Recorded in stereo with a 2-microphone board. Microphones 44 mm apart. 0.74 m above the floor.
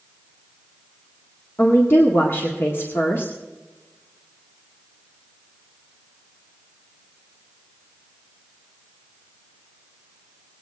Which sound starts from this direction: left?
A woman speaking, at 1.6 s.